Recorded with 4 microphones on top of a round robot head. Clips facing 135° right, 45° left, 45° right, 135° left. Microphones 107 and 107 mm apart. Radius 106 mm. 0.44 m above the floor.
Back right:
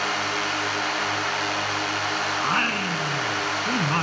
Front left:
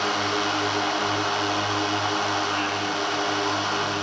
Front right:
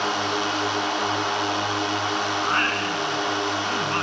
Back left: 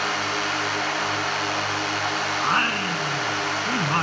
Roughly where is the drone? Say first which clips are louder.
Front left 2 dB, front right 2 dB; ahead.